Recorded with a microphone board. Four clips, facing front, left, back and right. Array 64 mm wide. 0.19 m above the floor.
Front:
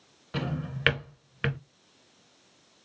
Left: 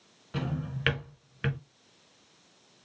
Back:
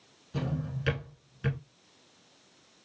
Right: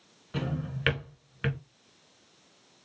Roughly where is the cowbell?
No cowbell in this recording.